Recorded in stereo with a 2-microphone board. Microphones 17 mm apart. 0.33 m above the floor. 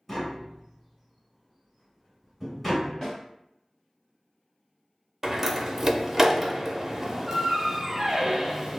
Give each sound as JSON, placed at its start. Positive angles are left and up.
{"t": 0.1, "sound": "tapping", "side_deg": 10, "distance_m": 1.7}
{"t": 3.0, "sound": "a snare drum", "side_deg": 20, "distance_m": 2.0}
{"t": 5.2, "sound": "a door slam", "side_deg": -15, "distance_m": 0.6}